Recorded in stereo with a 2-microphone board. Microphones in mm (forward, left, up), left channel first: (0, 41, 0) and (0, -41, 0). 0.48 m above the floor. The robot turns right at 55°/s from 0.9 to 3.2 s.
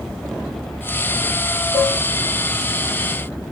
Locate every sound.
1.7 s dishes clattering: 60° right (ahead or behind), 4.5 m; by 2.0 s 70° right (ahead or behind), 4.5 m